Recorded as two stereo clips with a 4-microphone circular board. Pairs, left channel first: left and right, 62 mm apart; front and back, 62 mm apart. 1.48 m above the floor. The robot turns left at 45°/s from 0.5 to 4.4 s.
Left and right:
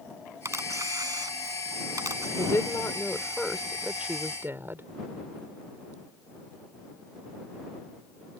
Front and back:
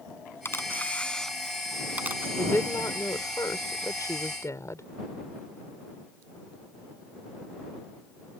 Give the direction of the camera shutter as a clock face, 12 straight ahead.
2 o'clock.